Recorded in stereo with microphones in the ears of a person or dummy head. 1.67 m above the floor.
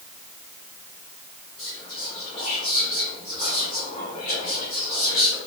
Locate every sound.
1.6 s whispering: 30° left (ahead or behind), 1.5 m